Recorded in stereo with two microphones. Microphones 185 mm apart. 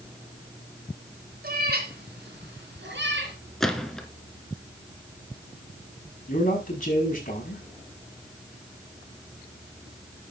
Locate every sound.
1.4 s a cat meowing: 55° right (ahead or behind), 3 m; by 3.4 s 85° right, 3.5 m
3.6 s a gunshot: centre (ahead or behind), 1.5 m
6.3 s a man speaking: 45° left (ahead or behind), 5.5 m